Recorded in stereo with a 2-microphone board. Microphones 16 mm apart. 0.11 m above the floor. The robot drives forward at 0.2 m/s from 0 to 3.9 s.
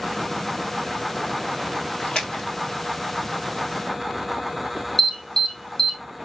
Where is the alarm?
35° left (ahead or behind), 1.7 m.